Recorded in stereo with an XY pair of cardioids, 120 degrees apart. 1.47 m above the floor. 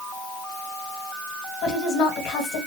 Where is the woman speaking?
70° left, 1.7 m.